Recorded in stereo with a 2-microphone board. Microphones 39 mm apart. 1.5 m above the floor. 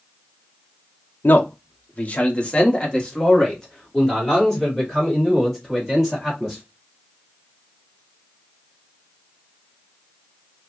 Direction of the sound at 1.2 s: 60° left (ahead or behind).